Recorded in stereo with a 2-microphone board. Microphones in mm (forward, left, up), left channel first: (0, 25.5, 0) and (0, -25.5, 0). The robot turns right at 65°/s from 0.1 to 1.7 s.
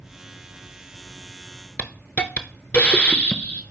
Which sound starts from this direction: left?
A hiss, at 1.8 s.